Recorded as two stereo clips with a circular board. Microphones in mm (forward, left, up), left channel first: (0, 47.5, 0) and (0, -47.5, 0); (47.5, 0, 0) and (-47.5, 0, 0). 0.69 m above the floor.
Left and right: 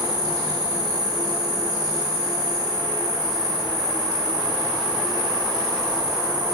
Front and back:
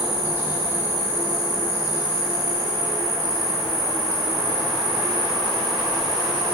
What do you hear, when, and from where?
0.0 s an insect: 120° right, 2.5 m